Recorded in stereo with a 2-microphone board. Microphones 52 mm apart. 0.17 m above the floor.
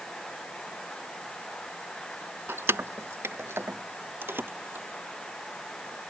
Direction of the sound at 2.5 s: 50° right (ahead or behind).